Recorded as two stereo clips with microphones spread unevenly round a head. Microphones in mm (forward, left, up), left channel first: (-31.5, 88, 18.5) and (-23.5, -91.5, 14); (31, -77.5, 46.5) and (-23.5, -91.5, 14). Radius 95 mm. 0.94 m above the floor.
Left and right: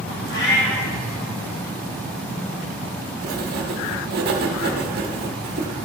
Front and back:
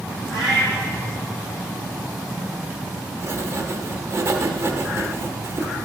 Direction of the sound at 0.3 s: 115° left.